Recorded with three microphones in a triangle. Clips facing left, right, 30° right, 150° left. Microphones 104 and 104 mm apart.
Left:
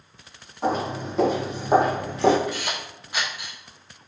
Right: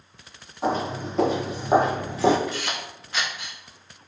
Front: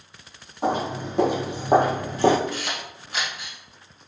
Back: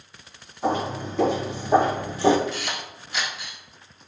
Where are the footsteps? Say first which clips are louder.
Even, even; straight ahead, 1.9 m; by 2.4 s 5° right, 0.8 m.